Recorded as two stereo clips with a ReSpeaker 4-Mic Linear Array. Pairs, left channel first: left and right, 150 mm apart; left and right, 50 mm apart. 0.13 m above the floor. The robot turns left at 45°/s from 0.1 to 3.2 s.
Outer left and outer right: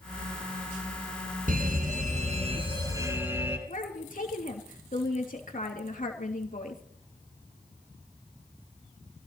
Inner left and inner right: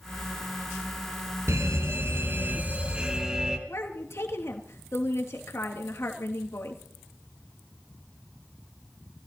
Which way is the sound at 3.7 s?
60° left (ahead or behind).